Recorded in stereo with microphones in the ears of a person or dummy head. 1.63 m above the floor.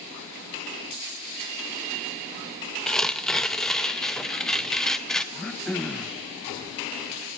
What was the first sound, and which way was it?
Tearing paper, centre (ahead or behind).